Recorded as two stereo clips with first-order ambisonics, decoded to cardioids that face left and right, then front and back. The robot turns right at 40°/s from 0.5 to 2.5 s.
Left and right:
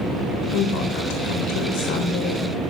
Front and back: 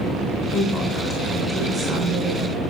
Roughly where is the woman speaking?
Ahead left.